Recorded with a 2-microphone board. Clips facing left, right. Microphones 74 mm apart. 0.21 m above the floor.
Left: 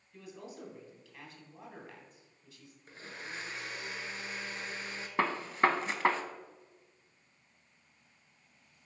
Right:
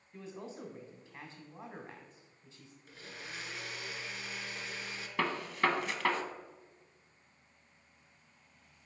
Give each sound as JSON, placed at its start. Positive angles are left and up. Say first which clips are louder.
{"t": 0.1, "sound": "a man speaking", "louder": "right 2 dB", "side_deg": -30, "distance_m": 1.5}
{"t": 2.9, "sound": "a blender", "louder": "left 3 dB", "side_deg": 40, "distance_m": 0.9}
{"t": 5.2, "sound": "a gunshot", "louder": "left 3 dB", "side_deg": 30, "distance_m": 0.6}